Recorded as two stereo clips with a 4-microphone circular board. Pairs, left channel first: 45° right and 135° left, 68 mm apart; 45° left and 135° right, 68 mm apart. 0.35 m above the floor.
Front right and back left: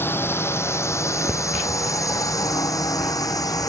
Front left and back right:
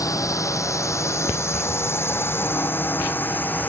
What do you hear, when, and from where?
0.0 s a drone: 10° left; by 3.7 s 20° right